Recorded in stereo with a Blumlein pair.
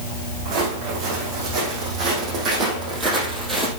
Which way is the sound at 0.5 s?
35° right.